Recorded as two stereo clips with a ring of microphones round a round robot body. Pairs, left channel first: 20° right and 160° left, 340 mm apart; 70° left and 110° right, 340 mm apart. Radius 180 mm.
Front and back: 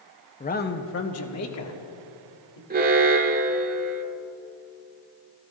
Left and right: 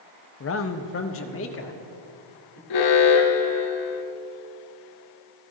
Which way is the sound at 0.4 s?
40° left.